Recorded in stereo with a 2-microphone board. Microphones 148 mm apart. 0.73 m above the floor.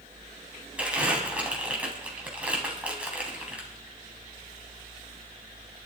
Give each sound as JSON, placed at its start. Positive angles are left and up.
{"t": 0.8, "sound": "crumpling", "side_deg": -10, "distance_m": 3.5}